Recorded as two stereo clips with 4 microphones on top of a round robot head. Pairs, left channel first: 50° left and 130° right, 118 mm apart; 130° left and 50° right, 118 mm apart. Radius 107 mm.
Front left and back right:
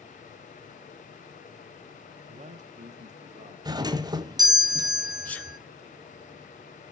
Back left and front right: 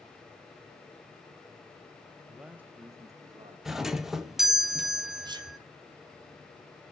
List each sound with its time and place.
2.3 s a man speaking: 140° right, 0.6 m; by 3.5 s 105° right, 1.3 m
3.6 s a doorbell: 135° right, 0.6 m
5.2 s a sneeze: 20° right, 0.8 m